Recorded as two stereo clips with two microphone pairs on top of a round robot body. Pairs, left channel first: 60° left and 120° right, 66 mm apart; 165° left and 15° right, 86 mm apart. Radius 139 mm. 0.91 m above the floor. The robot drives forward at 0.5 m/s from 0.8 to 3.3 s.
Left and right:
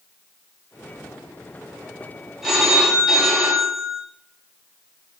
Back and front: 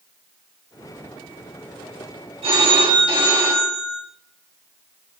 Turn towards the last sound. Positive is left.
turn(degrees=-30)